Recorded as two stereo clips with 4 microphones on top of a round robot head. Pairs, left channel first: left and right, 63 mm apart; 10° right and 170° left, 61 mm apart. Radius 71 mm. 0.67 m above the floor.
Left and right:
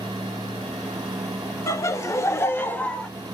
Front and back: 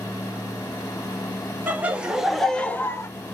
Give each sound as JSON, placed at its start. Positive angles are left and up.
{"t": 1.7, "sound": "laughter", "azimuth_deg": 115, "distance_m": 1.9}